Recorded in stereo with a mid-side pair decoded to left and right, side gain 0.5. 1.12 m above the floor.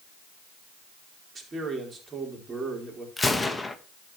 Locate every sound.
1.4 s a man speaking: 35° right, 4 m
3.2 s a gunshot: 15° left, 1.2 m